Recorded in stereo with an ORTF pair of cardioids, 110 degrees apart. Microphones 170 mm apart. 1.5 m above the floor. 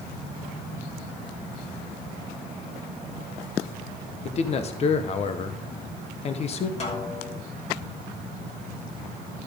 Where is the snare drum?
40° left, 2.5 m.